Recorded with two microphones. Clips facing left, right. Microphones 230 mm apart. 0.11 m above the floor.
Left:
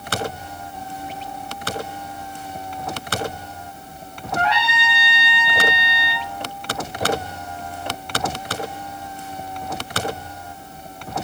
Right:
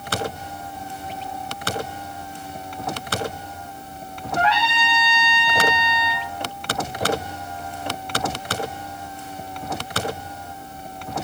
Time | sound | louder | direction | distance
4.3 | a trumpet | right 1 dB | 50° left (ahead or behind) | 3.5 m